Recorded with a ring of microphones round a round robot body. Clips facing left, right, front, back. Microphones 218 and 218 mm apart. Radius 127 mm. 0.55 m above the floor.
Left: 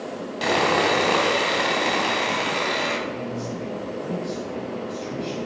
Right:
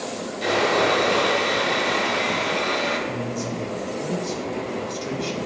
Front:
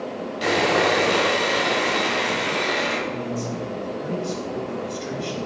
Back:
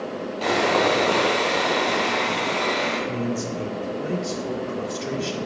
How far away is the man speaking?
About 2.5 m.